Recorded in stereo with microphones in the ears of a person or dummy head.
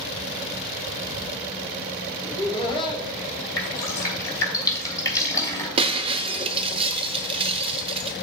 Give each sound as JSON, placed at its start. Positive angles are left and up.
{"t": 2.2, "sound": "laughter", "side_deg": 35, "distance_m": 2.0}
{"t": 3.6, "sound": "dripping", "side_deg": 20, "distance_m": 3.0}
{"t": 5.8, "sound": "breaking glass", "side_deg": -30, "distance_m": 0.7}